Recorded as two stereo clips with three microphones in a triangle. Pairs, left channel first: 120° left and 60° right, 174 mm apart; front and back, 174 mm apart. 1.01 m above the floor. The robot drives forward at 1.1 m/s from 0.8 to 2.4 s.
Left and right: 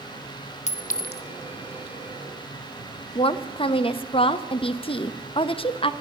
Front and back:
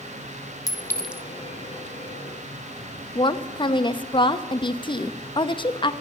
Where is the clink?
70° left, 0.8 m; by 1.2 s 105° left, 0.7 m.